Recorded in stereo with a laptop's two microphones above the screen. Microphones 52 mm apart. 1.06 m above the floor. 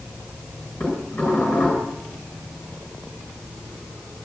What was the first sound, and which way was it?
Dishes clattering, 30° left (ahead or behind).